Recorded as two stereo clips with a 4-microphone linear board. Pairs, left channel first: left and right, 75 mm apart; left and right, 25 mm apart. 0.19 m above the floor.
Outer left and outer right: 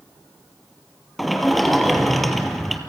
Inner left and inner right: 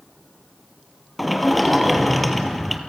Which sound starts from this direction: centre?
A sliding door, at 1.2 s.